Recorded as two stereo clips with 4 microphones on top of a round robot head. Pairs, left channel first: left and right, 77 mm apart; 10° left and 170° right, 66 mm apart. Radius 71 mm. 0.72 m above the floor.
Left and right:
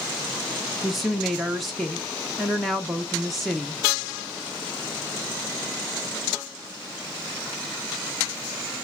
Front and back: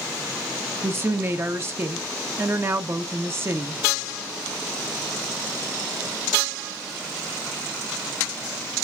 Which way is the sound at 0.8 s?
Straight behind.